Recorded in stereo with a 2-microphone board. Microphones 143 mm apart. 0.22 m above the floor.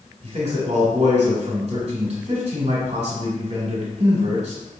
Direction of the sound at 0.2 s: 50° right (ahead or behind).